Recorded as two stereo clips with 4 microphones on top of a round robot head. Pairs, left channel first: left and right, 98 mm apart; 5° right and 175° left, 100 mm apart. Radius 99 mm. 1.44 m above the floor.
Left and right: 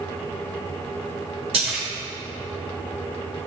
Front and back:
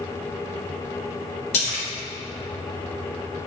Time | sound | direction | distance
1.5 | a splash | 40° right | 1.4 m